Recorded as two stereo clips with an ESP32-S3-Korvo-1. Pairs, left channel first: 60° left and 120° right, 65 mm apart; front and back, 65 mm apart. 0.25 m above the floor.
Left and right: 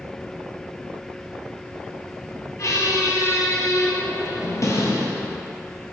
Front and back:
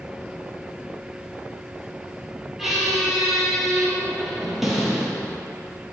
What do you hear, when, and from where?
2.6 s a squeak: 95° left, 0.6 m